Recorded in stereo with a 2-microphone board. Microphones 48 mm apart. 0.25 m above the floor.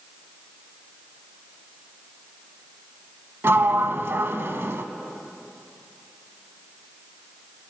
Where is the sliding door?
55° right (ahead or behind), 0.5 m.